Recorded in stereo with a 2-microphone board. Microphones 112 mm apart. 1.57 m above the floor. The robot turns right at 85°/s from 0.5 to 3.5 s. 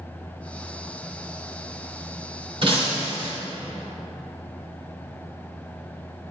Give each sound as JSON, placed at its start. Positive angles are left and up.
{"t": 2.6, "sound": "breaking glass", "azimuth_deg": -110, "distance_m": 2.5}